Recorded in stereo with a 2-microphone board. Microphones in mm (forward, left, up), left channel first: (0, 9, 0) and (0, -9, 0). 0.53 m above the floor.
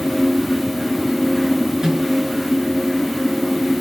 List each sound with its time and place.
1.8 s a microwave: 40° right (ahead or behind), 7.5 m